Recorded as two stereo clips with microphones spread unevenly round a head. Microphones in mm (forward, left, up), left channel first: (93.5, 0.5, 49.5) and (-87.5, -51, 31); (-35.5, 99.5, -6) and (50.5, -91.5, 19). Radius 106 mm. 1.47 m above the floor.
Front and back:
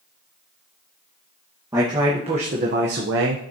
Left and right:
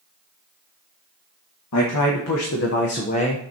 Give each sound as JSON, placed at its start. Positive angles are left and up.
{"t": 1.7, "sound": "a man speaking", "azimuth_deg": 120, "distance_m": 1.8}